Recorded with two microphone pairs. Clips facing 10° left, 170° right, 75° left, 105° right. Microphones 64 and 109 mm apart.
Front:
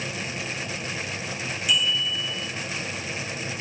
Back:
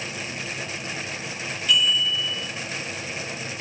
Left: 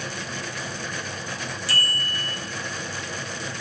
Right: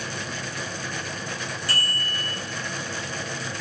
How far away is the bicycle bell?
About 9 m.